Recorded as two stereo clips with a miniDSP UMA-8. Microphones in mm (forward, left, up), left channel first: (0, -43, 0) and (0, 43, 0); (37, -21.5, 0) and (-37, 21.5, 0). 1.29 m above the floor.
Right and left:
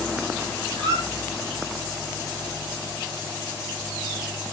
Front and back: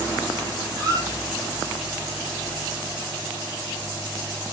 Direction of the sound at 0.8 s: 110° left.